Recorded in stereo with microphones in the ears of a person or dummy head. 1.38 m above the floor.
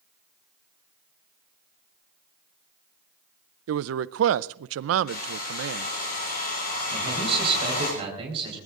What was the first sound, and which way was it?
A man speaking, 75° right (ahead or behind).